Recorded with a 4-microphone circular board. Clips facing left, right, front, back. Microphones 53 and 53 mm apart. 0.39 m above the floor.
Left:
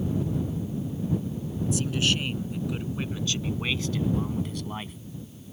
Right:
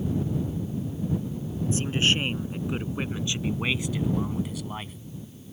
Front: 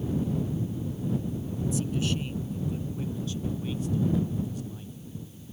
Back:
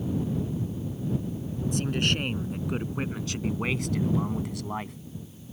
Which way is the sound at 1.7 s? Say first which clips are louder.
Right 2 dB, back 4 dB; 145° right.